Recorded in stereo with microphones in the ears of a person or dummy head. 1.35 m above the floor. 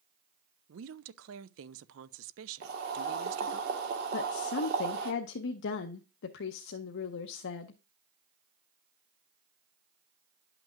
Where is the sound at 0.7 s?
70° right (ahead or behind), 0.6 m.